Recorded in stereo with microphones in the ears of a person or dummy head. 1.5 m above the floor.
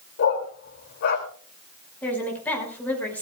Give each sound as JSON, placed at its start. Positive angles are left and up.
{"t": 0.2, "sound": "a dog barking", "side_deg": 55, "distance_m": 2.5}
{"t": 2.0, "sound": "a woman speaking", "side_deg": 10, "distance_m": 6.0}